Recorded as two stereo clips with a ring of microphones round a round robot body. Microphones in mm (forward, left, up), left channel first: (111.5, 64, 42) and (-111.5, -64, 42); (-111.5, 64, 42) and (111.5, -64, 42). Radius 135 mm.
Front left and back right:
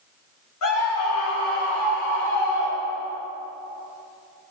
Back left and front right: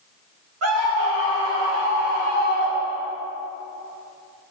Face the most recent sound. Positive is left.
turn(degrees=25)